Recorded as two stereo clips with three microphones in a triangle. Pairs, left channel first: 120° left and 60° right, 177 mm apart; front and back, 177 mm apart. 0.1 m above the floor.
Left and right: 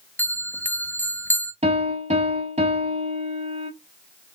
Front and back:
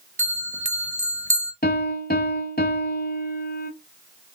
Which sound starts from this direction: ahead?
A piano, at 1.6 s.